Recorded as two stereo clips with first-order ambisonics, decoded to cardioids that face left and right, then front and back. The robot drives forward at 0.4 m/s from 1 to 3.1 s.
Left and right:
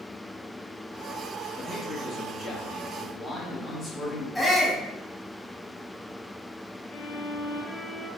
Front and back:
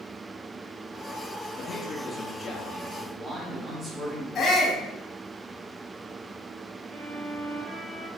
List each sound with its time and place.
1.6 s a man speaking: 35° left, 0.9 m; by 4.2 s 125° left, 0.8 m
4.3 s a shout: 10° left, 0.8 m
6.9 s a violin: 130° left, 0.7 m